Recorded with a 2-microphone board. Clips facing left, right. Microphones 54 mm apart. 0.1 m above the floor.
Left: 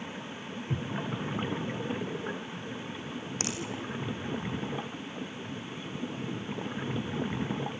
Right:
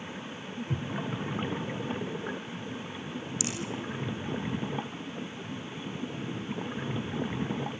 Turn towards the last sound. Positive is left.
turn(degrees=45)  # may be behind; listen again after turning